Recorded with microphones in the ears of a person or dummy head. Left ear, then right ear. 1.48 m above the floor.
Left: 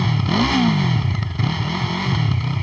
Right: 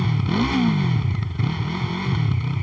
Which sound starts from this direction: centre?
A motorcycle, at 0.0 s.